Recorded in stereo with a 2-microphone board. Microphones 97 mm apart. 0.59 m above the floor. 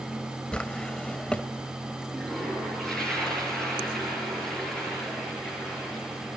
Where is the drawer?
10° left (ahead or behind), 1.1 m.